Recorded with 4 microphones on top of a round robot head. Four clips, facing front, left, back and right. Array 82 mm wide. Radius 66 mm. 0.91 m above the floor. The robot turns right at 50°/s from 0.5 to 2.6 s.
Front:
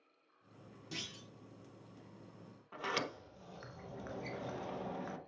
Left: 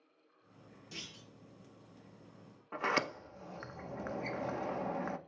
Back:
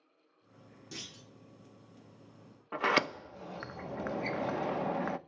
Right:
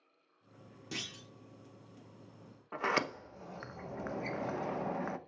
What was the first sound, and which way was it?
A clunk, 100° right.